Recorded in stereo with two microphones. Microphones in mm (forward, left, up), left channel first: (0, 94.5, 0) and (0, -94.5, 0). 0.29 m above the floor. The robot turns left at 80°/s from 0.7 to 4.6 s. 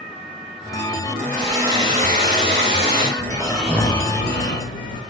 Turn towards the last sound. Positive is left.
turn(degrees=100)